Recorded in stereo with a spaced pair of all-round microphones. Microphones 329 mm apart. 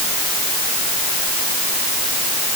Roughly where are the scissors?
No scissors in this recording.